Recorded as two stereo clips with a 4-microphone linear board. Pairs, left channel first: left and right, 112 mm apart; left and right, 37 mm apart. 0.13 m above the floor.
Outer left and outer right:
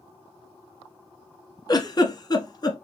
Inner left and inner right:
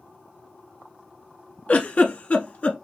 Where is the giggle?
40° left (ahead or behind), 1.2 m.